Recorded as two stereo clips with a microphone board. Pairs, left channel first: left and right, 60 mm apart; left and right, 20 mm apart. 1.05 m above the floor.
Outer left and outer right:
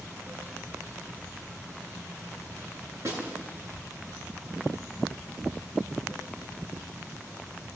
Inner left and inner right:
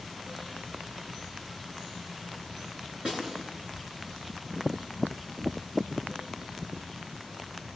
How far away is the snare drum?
About 10 m.